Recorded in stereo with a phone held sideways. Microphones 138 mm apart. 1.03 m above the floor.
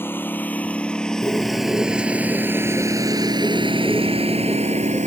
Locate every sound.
0.0 s a lawn mower: 15° left (ahead or behind); by 5.1 s 65° right (ahead or behind)
1.2 s a bird: 15° left (ahead or behind)